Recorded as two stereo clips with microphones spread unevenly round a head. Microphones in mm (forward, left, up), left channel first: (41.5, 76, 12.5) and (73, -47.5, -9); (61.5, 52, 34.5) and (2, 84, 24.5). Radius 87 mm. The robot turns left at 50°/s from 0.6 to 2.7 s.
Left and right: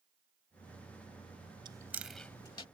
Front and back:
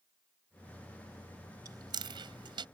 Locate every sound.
1.6 s chewing: 145° right; by 2.6 s 165° left